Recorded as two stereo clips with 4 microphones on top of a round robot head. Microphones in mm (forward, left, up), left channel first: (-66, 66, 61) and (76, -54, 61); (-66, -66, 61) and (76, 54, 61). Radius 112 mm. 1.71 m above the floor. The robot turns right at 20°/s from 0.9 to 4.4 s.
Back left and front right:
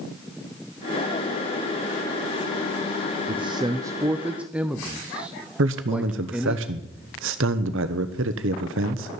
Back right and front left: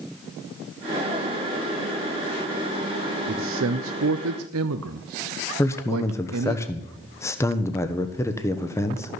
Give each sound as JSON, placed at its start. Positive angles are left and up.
{"t": 3.3, "sound": "a man speaking", "azimuth_deg": 20, "distance_m": 0.6}
{"t": 5.6, "sound": "a man speaking", "azimuth_deg": -65, "distance_m": 0.9}